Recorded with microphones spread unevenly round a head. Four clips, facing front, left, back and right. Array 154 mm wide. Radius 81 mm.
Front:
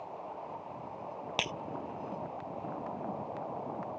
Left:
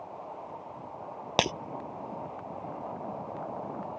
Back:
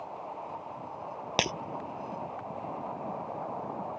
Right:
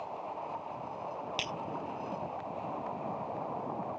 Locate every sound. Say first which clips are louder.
1.4 s breaking glass: left 12 dB, back 7 dB; 115° left